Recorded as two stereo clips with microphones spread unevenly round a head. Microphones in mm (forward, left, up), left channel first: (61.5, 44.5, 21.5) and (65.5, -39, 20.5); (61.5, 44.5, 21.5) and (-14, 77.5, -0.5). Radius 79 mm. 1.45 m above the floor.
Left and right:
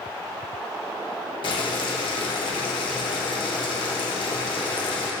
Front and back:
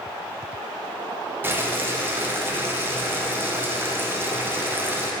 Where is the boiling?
100° left, 0.9 m.